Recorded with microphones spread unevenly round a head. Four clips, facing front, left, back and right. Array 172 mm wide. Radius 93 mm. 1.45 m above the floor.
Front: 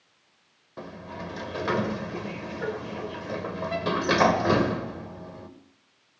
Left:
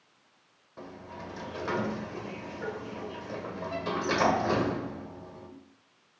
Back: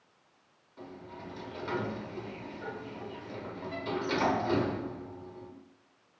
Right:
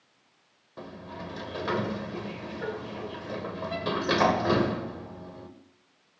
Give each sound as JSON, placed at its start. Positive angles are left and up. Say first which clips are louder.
{"t": 0.8, "sound": "a sliding door", "louder": "right 2 dB, front 7 dB", "azimuth_deg": -15, "distance_m": 1.4}